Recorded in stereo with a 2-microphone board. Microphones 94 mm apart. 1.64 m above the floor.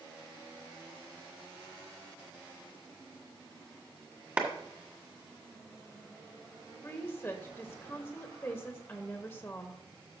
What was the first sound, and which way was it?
A clap, 20° right (ahead or behind).